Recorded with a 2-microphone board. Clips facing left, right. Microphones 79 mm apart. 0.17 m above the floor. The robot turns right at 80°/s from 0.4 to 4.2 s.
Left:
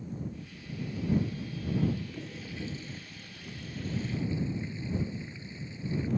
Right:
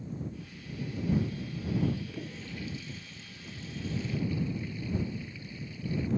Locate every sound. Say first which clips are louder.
2.0 s a toilet flushing: even; 25° right (ahead or behind); by 6.1 s 25° left (ahead or behind)